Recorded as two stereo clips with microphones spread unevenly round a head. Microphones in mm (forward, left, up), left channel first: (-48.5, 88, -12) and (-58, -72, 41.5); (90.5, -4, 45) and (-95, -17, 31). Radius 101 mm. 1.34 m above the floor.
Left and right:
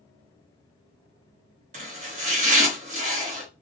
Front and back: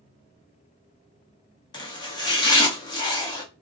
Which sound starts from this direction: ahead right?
Chopping, at 1.7 s.